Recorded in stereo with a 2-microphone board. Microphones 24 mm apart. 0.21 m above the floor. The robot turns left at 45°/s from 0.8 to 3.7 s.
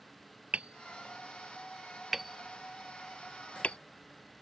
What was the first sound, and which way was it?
Hammering, 70° right (ahead or behind).